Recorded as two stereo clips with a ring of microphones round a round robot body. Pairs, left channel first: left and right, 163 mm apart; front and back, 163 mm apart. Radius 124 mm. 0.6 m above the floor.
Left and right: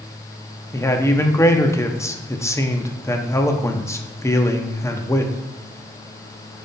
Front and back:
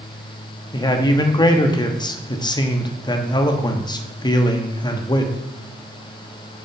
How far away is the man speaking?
About 1.1 m.